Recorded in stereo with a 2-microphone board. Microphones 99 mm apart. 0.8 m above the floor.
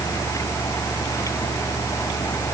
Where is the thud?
No thud in this recording.